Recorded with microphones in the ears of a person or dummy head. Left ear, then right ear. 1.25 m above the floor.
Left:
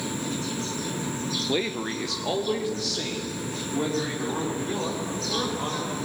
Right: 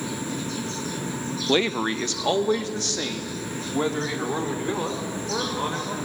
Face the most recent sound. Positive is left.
turn(degrees=-40)  # may be behind; listen again after turning